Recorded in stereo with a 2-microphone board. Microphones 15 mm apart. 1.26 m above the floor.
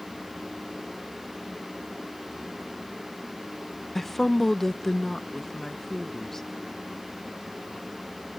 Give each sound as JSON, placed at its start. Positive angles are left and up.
{"t": 4.0, "sound": "a woman speaking", "side_deg": 10}